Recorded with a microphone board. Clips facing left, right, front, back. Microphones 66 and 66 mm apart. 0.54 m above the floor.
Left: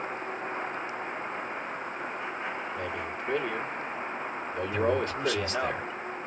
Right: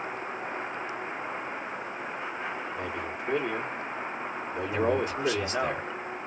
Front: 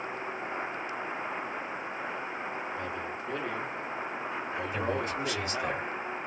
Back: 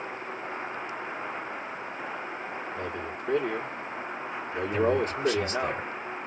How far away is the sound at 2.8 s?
About 1.3 m.